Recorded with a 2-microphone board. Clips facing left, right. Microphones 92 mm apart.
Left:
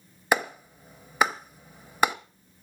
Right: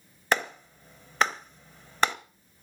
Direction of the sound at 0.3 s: 10° left (ahead or behind).